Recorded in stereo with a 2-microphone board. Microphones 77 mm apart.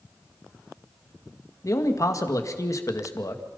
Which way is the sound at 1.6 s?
45° left (ahead or behind).